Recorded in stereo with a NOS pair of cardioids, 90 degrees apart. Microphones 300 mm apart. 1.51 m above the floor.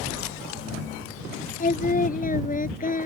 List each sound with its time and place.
1.6 s singing: 25° left